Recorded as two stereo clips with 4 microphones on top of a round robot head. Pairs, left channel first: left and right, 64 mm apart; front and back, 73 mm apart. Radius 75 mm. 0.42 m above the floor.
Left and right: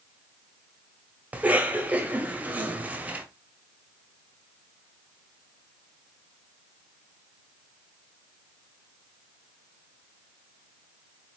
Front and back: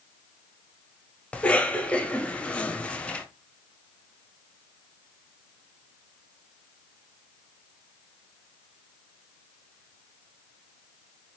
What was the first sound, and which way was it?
A cough, 55° right.